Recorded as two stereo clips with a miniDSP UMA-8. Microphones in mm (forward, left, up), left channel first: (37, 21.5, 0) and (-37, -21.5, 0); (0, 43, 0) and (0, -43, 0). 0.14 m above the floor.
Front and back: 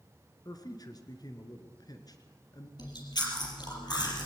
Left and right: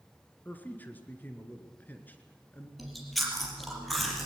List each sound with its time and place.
0.5 s a man speaking: 30° left, 2.5 m
2.8 s chewing: straight ahead, 4.5 m